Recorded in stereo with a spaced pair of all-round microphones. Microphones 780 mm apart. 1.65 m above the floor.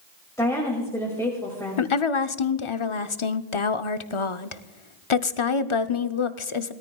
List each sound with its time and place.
0.4 s a woman speaking: 5° left (ahead or behind), 2 m
1.8 s a woman speaking: 40° left (ahead or behind), 0.7 m